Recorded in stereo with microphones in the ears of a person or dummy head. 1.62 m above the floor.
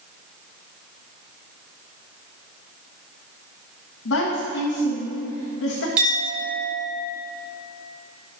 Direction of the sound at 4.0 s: 70° left (ahead or behind).